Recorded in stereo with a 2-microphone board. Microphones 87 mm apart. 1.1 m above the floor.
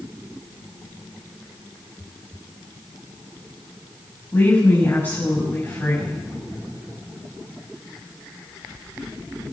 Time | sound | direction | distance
4.3 | a woman speaking | 30° left (ahead or behind) | 6.5 m